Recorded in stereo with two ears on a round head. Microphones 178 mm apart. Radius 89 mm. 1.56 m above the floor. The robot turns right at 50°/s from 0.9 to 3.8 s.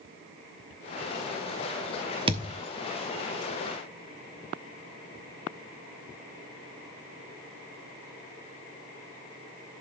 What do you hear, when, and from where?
2.3 s a thud: 25° right (ahead or behind), 1.2 m; by 2.6 s 20° right (ahead or behind), 1.2 m